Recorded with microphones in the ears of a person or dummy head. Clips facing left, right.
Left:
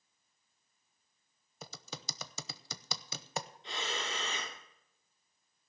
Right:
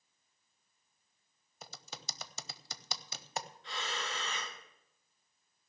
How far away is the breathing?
About 1.7 m.